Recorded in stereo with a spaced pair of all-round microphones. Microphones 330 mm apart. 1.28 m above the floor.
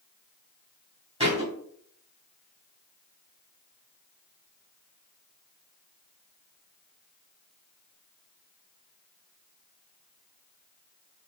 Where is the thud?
20° right (ahead or behind), 2 m.